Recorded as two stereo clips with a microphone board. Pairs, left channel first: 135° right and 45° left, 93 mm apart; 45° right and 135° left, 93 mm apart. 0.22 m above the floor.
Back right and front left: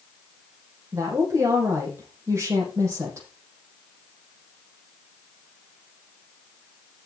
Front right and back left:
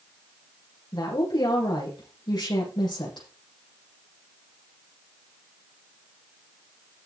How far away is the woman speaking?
About 8 m.